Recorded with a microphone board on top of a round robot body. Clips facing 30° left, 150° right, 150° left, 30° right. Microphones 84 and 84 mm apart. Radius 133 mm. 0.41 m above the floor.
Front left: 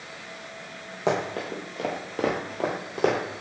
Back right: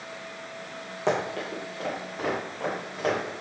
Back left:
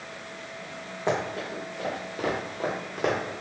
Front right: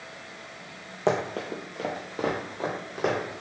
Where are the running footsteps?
50° right, 0.7 m; by 3.2 s 60° left, 1.0 m.